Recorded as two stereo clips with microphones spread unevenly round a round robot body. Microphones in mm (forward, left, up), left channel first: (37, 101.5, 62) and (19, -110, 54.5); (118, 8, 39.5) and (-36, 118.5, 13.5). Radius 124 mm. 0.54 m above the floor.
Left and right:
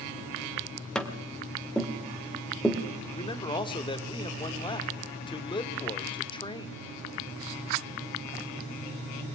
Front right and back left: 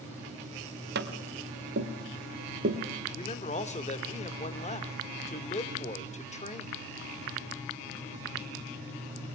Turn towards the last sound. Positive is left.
turn(degrees=20)